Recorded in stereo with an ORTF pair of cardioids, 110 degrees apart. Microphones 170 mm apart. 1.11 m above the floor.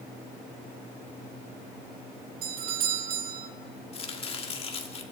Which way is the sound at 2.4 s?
60° right.